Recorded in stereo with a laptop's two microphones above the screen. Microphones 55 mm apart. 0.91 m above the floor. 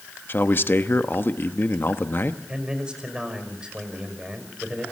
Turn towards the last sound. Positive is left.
turn(degrees=-15)  # may be behind; listen again after turning